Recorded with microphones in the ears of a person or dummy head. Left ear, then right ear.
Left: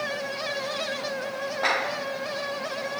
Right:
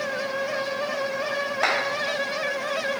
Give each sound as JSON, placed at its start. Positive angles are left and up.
{"t": 1.6, "sound": "a clap", "side_deg": -60, "distance_m": 2.0}